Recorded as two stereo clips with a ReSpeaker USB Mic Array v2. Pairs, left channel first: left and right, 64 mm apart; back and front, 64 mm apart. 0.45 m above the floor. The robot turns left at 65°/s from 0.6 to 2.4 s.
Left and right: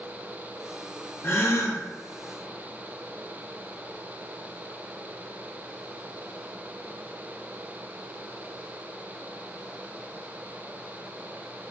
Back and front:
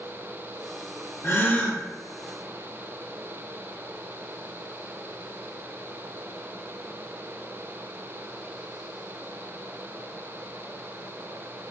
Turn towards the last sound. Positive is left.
turn(degrees=60)